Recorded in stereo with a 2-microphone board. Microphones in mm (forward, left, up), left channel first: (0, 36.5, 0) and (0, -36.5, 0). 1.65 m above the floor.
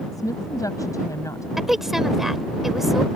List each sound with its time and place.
0.1 s a woman speaking: 50° left (ahead or behind); by 1.5 s 45° left (ahead or behind)
1.6 s a woman speaking: 5° right (ahead or behind)